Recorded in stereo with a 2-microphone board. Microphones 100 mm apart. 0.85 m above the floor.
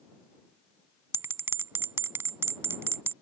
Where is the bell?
25° right (ahead or behind).